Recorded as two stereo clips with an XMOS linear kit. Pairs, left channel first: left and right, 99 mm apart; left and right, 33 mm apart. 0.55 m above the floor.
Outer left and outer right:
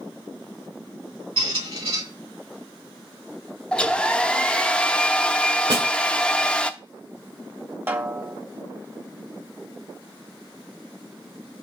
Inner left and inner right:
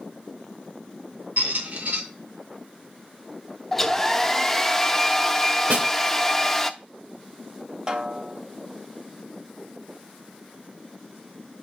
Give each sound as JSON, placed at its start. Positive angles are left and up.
{"t": 1.4, "sound": "a squeak", "side_deg": -75, "distance_m": 2.5}
{"t": 3.7, "sound": "a hair dryer", "side_deg": 10, "distance_m": 0.6}
{"t": 5.7, "sound": "a snare drum", "side_deg": -70, "distance_m": 2.5}
{"t": 7.9, "sound": "a snare drum", "side_deg": -20, "distance_m": 1.0}